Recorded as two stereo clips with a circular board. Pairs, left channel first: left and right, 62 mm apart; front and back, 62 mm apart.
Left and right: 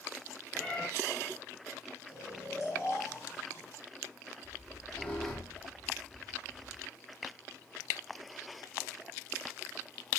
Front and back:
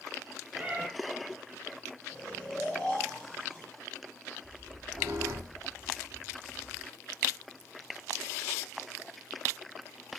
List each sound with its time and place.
0.6 s a cat meowing: 140° left, 0.6 m
2.1 s snoring: 70° left, 1.6 m
4.4 s a squeak: 155° left, 1.4 m